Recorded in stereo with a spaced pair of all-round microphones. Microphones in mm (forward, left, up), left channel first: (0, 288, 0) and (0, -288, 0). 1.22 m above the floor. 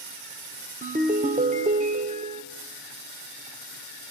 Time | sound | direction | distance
0.8 | a ringtone | 15° right (ahead or behind) | 1.4 m